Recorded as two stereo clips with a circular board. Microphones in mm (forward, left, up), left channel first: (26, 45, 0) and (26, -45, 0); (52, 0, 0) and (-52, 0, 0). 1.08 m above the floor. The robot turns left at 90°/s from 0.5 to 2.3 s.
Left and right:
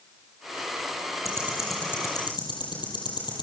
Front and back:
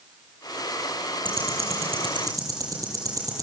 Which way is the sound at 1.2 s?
140° right.